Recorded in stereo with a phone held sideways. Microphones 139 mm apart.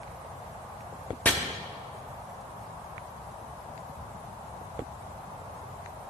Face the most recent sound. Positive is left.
turn(degrees=10)  # may be behind; listen again after turning